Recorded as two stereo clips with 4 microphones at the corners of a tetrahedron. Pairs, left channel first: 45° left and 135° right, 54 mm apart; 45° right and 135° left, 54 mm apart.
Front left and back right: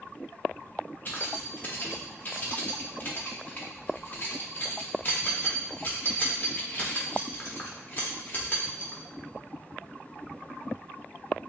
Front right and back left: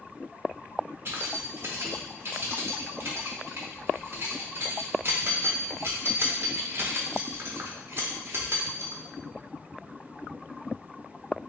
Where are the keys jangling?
95° left, 0.7 m.